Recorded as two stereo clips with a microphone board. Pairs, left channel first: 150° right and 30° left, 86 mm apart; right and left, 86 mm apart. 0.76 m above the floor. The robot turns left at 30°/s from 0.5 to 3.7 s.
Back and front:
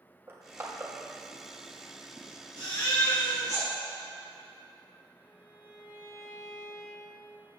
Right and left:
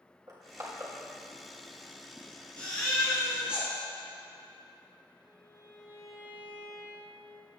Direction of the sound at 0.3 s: 75° left.